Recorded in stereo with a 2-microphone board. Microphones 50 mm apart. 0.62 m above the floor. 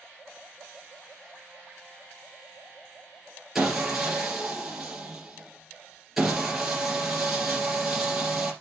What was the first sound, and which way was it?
Sawing, centre (ahead or behind).